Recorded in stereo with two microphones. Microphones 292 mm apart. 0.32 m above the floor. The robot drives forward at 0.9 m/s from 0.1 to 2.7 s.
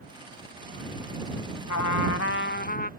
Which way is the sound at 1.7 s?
70° left (ahead or behind).